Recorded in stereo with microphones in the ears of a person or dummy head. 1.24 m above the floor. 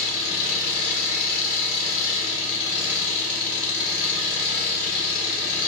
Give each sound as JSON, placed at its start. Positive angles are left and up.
{"t": 0.0, "sound": "an engine running", "side_deg": 35, "distance_m": 1.7}